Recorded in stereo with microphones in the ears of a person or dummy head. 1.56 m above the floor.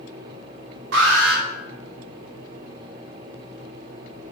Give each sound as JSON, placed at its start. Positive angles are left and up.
{"t": 0.9, "sound": "an alarm", "side_deg": -65, "distance_m": 5.0}